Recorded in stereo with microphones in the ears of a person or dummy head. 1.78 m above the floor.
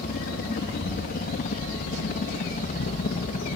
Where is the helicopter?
50° left (ahead or behind); by 3.6 s 45° left (ahead or behind).